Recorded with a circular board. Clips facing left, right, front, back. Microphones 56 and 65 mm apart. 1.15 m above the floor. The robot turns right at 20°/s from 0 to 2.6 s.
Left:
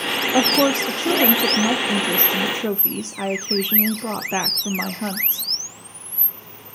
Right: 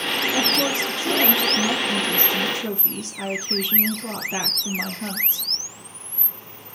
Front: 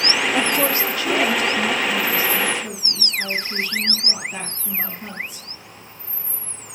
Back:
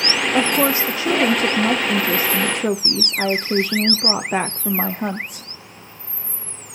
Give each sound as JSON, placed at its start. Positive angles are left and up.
{"t": 0.3, "sound": "a woman speaking", "azimuth_deg": 100, "distance_m": 0.6}